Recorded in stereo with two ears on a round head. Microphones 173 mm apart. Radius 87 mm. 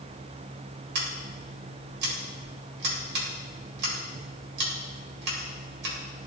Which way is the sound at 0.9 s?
55° right (ahead or behind).